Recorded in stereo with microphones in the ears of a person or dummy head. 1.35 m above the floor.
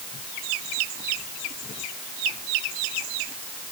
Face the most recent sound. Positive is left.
No sound to turn to.